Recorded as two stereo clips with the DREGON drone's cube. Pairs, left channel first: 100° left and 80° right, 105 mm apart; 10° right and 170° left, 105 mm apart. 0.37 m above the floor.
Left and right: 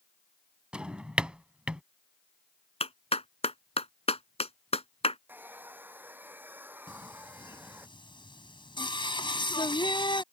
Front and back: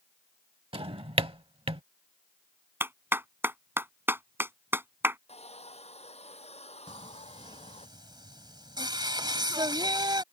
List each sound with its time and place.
0.7 s a drawer: 160° right
2.8 s a clap: 100° left
5.3 s a hair dryer: 10° right
6.9 s singing: 130° left